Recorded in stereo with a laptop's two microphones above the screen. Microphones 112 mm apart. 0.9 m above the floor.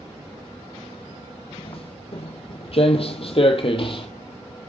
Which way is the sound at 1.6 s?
55° left (ahead or behind).